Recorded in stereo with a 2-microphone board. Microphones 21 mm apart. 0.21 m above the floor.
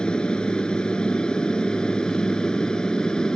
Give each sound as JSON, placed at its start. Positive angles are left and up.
{"t": 0.0, "sound": "an aircraft", "side_deg": 45}